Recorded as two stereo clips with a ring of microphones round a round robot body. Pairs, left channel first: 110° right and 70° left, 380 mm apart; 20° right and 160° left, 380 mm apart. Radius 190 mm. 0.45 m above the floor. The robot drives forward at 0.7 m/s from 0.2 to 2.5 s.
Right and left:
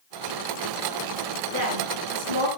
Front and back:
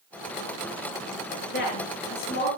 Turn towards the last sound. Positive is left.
turn(degrees=45)